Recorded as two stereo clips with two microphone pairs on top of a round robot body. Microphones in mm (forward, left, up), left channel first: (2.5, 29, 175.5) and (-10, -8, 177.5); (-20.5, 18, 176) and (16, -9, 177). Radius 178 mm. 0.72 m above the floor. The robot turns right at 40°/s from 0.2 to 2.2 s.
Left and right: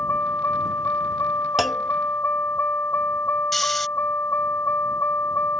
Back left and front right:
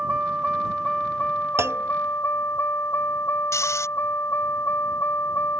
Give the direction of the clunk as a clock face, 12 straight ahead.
1 o'clock.